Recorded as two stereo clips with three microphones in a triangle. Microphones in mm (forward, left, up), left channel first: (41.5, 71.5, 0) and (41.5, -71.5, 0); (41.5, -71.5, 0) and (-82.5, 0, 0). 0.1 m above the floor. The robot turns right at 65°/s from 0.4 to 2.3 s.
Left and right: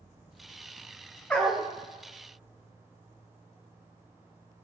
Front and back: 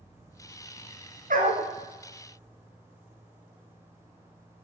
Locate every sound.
1.3 s a dog barking: 170° left, 4 m; by 1.7 s 165° right, 4 m